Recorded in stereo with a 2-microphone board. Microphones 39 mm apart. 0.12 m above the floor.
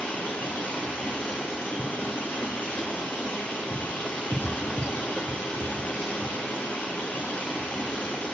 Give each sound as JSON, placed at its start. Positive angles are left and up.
{"t": 0.0, "sound": "running water", "side_deg": 80, "distance_m": 3.5}